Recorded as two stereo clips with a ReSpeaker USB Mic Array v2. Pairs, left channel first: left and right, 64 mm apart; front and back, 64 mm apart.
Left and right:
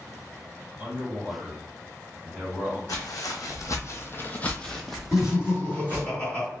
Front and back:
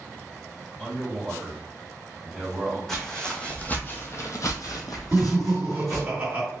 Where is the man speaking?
70° right, 1.6 m.